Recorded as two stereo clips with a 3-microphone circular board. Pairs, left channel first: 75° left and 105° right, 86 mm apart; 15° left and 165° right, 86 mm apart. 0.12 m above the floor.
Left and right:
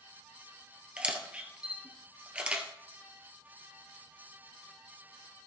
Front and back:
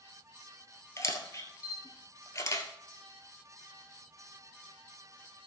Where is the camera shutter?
30° right, 1.7 m.